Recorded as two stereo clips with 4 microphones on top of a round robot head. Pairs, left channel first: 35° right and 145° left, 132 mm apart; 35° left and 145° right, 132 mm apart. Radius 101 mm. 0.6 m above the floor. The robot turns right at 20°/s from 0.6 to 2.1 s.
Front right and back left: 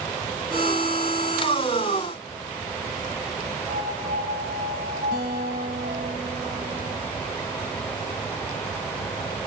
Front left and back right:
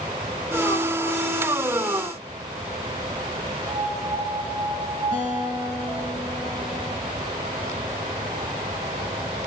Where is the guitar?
115° left, 5.5 m.